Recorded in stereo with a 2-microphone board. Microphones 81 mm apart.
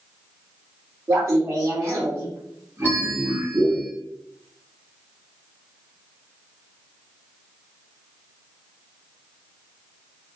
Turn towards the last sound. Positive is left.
turn(degrees=20)  # may be behind; listen again after turning